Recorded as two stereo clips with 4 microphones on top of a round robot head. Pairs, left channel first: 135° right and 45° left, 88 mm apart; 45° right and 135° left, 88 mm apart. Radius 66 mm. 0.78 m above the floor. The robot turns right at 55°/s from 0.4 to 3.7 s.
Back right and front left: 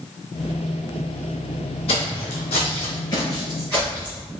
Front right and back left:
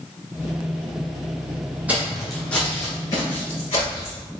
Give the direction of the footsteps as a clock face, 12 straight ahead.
5 o'clock.